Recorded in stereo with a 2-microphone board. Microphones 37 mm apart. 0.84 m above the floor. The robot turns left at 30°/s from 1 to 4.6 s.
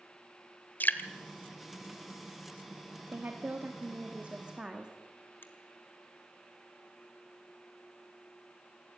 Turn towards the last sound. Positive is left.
turn(degrees=60)  # may be behind; listen again after turning